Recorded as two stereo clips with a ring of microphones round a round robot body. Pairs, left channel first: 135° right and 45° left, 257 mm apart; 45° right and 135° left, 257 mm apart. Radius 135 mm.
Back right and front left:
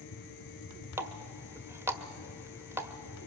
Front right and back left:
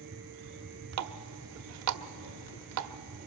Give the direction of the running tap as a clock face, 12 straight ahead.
8 o'clock.